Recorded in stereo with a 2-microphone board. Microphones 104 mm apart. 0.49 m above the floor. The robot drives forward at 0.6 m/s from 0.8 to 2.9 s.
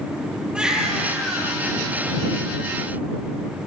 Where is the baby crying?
10° right (ahead or behind), 5.5 m.